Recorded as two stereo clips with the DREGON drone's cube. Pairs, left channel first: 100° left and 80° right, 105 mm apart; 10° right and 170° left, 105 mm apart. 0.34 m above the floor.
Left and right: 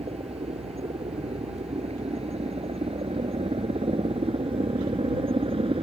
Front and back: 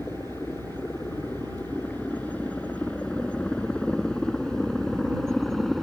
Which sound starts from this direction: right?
A helicopter, at 0.0 s.